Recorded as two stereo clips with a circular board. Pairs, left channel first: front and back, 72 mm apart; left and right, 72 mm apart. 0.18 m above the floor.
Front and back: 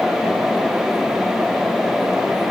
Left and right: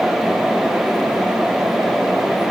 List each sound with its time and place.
Only background noise.